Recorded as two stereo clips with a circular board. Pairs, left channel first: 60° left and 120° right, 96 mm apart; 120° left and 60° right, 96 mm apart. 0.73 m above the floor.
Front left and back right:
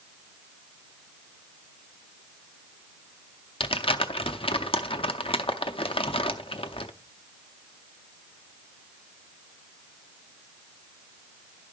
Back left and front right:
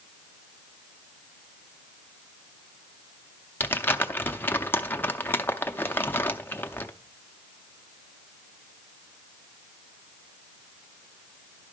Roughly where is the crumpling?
Ahead left.